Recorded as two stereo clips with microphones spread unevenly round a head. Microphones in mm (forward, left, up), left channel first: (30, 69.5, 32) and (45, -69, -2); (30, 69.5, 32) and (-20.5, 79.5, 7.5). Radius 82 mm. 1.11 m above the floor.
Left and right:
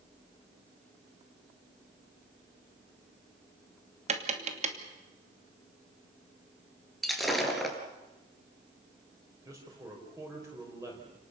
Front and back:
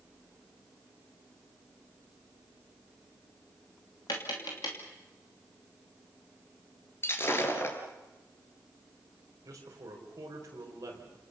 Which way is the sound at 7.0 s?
10° left.